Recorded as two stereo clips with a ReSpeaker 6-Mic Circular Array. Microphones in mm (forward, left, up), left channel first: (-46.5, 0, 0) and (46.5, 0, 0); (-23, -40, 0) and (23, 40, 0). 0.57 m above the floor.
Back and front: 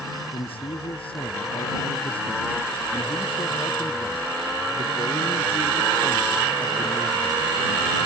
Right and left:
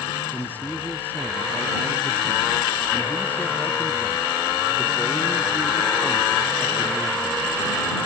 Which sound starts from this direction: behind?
A man speaking, at 0.3 s.